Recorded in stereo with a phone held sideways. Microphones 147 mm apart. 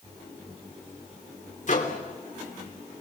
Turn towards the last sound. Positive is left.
turn(degrees=55)  # may be behind; listen again after turning